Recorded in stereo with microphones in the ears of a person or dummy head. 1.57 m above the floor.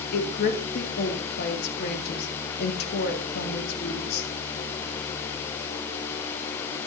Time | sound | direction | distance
0.1 | a woman speaking | 60° left (ahead or behind) | 2 m